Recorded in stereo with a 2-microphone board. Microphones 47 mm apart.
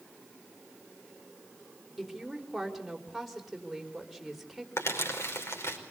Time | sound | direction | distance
2.0 | a woman speaking | centre (ahead or behind) | 4.5 m
4.8 | crumpling | 75° left (ahead or behind) | 4.5 m